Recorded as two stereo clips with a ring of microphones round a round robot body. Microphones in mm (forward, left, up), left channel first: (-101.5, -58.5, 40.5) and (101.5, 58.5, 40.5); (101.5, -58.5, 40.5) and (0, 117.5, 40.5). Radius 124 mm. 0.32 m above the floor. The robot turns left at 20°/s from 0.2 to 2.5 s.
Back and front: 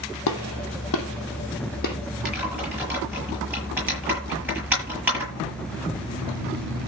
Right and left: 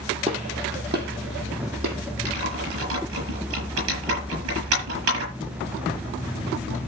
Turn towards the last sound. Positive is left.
turn(degrees=115)